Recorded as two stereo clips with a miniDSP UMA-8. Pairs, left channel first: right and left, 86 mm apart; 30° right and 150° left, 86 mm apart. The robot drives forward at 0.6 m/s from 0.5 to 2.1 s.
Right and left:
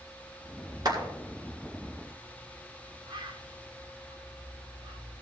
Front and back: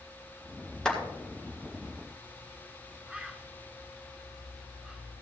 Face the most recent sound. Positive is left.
turn(degrees=65)